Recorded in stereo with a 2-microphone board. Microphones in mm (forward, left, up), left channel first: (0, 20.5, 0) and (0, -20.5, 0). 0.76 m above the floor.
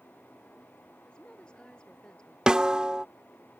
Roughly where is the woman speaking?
Left.